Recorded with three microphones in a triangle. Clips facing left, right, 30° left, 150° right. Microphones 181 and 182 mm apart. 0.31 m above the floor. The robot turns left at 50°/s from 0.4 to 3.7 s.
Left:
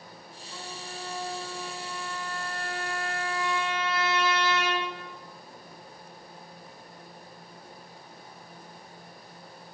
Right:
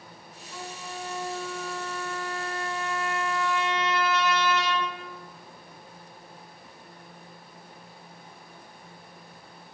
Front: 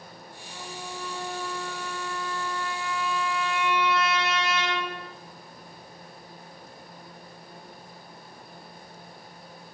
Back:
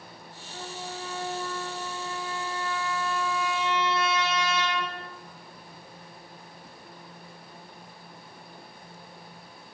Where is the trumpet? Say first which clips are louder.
Right 3 dB, back 1 dB; 170° left, 3 m; by 4.9 s 10° left, 3 m.